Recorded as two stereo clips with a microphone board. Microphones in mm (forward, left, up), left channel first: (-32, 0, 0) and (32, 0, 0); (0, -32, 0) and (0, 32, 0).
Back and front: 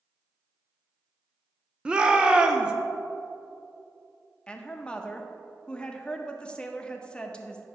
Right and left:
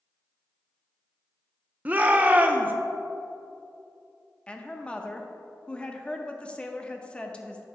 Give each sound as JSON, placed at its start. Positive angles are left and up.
{"t": 1.9, "sound": "a shout", "azimuth_deg": 60, "distance_m": 0.6}
{"t": 4.5, "sound": "a woman speaking", "azimuth_deg": -130, "distance_m": 0.6}